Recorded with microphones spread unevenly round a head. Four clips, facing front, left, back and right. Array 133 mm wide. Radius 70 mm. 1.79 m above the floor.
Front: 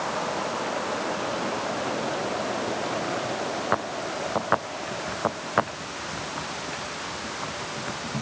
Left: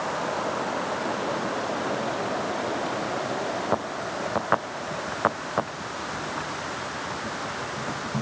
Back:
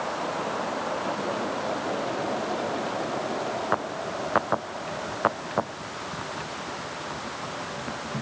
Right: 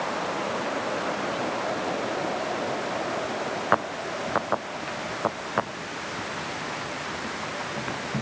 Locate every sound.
Only background noise.